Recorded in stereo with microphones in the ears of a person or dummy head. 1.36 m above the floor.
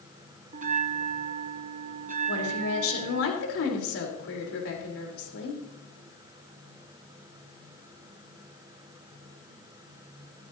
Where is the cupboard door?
I don't hear a cupboard door.